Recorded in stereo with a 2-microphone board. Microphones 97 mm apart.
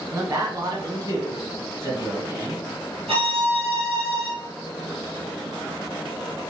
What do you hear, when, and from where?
0.1 s a man speaking: 35° right (ahead or behind), 1.2 m; by 2.6 s 30° right (ahead or behind), 2 m
3.1 s a violin: 80° right, 2 m